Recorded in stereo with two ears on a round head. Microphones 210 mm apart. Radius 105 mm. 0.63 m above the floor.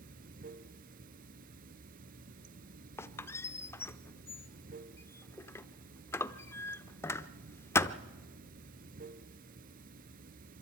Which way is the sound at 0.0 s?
35° right (ahead or behind).